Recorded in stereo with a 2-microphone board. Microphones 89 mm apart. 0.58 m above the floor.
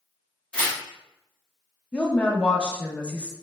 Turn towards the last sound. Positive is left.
turn(degrees=10)  # may be behind; listen again after turning